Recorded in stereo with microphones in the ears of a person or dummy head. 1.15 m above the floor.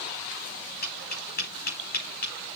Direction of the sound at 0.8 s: 55° left (ahead or behind).